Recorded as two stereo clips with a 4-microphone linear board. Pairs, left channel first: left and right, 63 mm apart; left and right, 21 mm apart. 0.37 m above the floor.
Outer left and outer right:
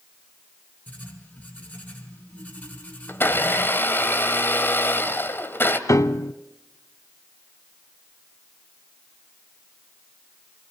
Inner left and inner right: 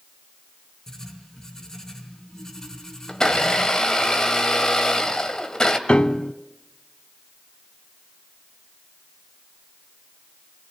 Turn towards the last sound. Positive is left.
turn(degrees=55)  # may be behind; listen again after turning